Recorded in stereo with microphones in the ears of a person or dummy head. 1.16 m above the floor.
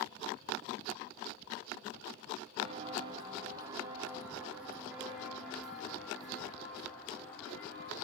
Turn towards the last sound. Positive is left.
turn(degrees=5)  # may be behind; listen again after turning